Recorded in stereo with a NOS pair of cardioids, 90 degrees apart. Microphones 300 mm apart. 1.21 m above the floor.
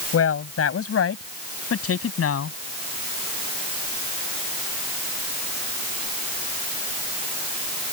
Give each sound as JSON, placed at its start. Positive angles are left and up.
{"t": 0.1, "sound": "a woman speaking", "azimuth_deg": 50}